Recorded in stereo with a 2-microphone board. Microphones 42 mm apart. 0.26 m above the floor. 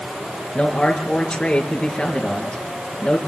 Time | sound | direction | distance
0.6 | a man speaking | 15° left (ahead or behind) | 4.5 m